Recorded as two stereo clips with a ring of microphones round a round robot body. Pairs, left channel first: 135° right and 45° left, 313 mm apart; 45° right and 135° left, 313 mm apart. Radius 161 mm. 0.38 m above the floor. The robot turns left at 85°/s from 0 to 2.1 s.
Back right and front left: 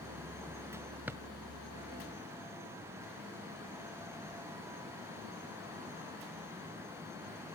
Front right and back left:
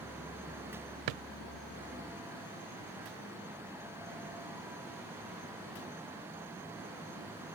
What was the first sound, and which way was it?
A drawer, 130° left.